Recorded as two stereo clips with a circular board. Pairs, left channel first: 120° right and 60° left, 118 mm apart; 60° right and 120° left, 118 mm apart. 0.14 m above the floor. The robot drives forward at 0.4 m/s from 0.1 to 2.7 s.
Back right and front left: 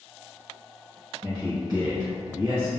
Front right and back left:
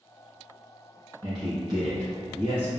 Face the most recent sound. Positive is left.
turn(degrees=125)